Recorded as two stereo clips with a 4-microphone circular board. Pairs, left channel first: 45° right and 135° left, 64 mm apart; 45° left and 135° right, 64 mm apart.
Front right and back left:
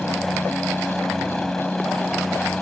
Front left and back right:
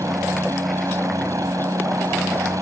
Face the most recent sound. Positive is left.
turn(degrees=-130)